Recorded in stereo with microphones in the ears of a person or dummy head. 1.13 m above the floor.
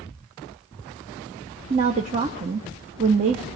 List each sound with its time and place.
1.7 s a woman speaking: 30° right (ahead or behind), 0.6 m